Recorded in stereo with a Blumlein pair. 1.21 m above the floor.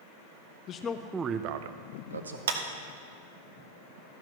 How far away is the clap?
About 1.1 m.